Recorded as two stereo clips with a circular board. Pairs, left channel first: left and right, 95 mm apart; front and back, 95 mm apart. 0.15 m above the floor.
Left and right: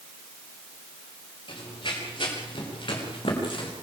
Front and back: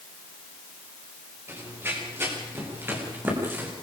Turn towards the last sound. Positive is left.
turn(degrees=110)